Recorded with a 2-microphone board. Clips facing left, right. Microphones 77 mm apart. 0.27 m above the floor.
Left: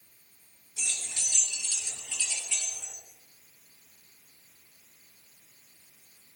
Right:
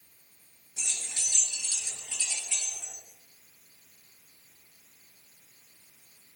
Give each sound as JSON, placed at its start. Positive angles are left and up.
{"t": 0.8, "sound": "keys jangling", "side_deg": -30, "distance_m": 3.0}